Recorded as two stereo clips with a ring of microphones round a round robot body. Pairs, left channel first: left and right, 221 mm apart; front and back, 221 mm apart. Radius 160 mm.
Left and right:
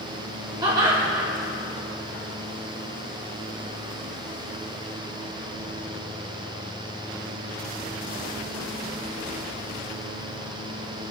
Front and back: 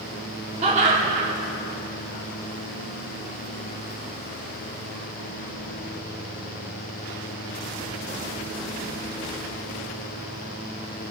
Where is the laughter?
150° right, 1.4 m.